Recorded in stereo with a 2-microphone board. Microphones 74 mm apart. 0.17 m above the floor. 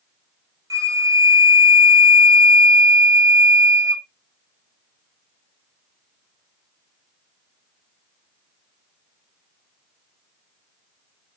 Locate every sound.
0.7 s a flute: 50° right (ahead or behind), 0.6 m